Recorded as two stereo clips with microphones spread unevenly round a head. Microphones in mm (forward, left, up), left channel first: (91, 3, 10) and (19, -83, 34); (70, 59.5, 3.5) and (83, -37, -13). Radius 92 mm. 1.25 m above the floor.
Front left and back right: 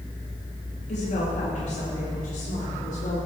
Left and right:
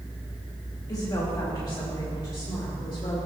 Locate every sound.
0.9 s a woman speaking: 45° left, 2.0 m; by 3.2 s 55° left, 4 m